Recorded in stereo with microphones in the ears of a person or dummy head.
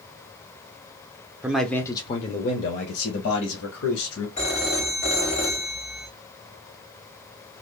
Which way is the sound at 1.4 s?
10° right (ahead or behind).